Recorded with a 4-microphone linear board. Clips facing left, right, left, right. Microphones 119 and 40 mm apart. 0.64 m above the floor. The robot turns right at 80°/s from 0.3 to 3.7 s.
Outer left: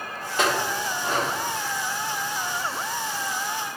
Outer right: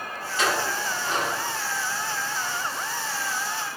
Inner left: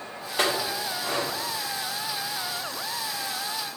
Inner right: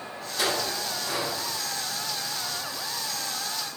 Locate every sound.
0.4 s a clink: 60° left (ahead or behind), 0.9 m; by 1.3 s 40° left (ahead or behind), 0.9 m